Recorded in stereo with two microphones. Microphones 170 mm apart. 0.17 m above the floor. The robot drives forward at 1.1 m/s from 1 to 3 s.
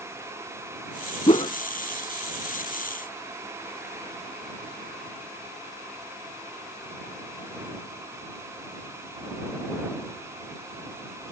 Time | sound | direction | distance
1.3 | a whoosh | 35° left (ahead or behind) | ?